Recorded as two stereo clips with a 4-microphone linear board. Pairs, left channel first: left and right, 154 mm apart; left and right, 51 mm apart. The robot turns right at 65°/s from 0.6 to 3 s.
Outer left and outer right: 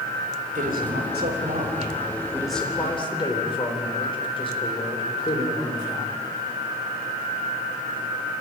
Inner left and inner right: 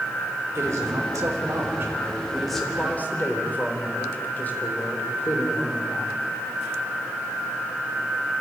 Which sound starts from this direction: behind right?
A man speaking, at 0.6 s.